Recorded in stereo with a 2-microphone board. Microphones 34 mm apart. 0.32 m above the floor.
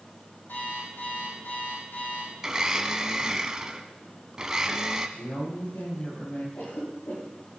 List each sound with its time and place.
0.5 s an alarm clock: 80° left, 8.5 m
2.4 s a blender: 20° right (ahead or behind), 1.0 m
5.2 s a woman speaking: 80° left, 8.5 m
6.6 s a cough: 70° left (ahead or behind), 7 m